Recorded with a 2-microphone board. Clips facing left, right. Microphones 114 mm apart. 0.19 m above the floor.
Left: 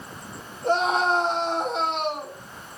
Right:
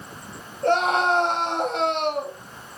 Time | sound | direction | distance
0.6 | a scream | 70° right (ahead or behind) | 4 m